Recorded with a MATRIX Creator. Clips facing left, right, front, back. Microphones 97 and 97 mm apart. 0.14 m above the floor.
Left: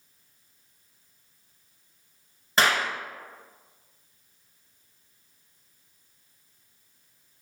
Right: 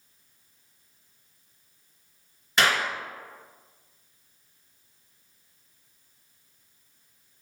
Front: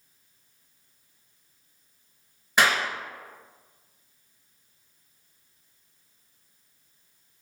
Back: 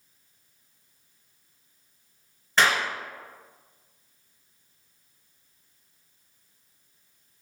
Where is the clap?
70° left, 1.4 m.